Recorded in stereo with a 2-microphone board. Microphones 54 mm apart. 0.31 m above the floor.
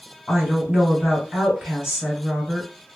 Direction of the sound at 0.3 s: 15° right (ahead or behind).